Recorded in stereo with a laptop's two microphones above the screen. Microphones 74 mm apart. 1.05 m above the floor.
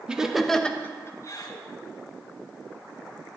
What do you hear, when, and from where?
0.1 s laughter: 15° right (ahead or behind), 1.6 m; by 1.6 s 60° left (ahead or behind), 1.4 m